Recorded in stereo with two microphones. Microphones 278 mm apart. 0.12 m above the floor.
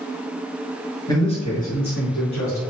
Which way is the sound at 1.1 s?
15° left (ahead or behind).